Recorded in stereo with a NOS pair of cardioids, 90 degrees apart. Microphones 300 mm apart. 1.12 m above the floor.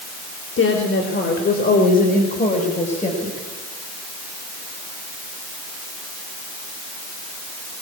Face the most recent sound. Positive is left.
turn(degrees=20)